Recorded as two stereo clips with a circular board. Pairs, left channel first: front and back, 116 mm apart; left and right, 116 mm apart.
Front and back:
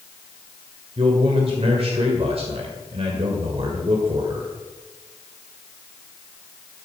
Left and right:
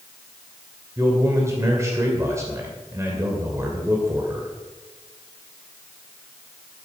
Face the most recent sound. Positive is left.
turn(degrees=-155)